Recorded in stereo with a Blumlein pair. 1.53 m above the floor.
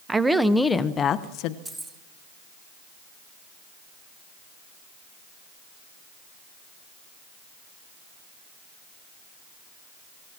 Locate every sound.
0.1 s a woman speaking: 10° right, 1.4 m; by 1.6 s 45° left, 1.3 m
1.6 s keys jangling: 10° right, 1.9 m